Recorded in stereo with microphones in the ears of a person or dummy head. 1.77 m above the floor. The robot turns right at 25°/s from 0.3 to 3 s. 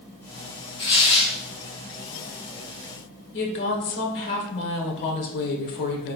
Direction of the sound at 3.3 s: 60° left (ahead or behind).